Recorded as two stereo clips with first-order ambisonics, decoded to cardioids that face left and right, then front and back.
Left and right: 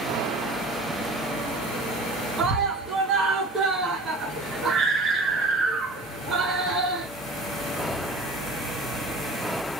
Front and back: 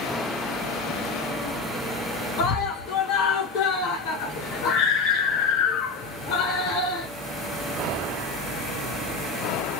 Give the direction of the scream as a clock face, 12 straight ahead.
1 o'clock.